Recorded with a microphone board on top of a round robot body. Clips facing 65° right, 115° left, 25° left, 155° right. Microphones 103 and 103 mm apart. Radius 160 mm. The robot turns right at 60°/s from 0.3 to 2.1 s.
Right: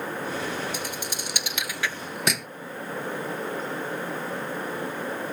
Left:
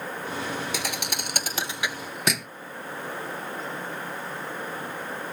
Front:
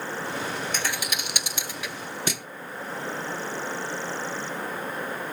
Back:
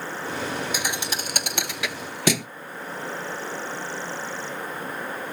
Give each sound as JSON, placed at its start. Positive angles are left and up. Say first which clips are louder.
{"t": 0.7, "sound": "a thud", "louder": "left 1 dB, back 1 dB", "azimuth_deg": 120}